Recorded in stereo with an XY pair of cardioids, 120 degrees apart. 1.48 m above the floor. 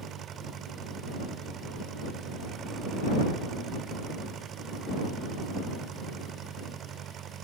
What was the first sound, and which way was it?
An engine running, 55° right.